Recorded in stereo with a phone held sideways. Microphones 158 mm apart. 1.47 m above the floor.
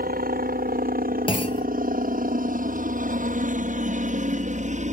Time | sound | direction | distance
0.0 | a helicopter | 65° right (ahead or behind) | ?
1.3 | a clunk | 30° left (ahead or behind) | ?